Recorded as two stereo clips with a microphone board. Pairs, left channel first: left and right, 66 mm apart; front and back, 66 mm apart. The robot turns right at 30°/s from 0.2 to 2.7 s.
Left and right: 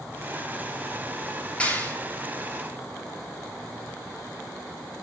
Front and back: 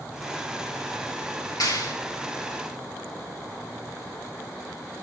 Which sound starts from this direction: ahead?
A clap, at 1.6 s.